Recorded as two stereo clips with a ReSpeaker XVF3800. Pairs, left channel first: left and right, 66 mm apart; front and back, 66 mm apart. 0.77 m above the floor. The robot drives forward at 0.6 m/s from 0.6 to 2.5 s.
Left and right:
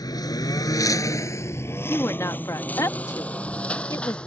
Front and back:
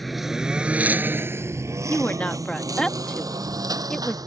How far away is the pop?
I don't hear a pop.